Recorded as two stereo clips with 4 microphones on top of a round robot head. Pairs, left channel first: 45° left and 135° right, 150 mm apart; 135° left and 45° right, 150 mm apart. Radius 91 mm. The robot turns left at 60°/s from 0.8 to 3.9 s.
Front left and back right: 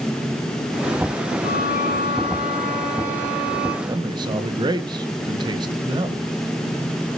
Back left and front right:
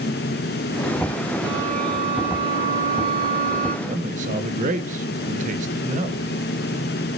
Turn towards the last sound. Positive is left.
turn(degrees=-75)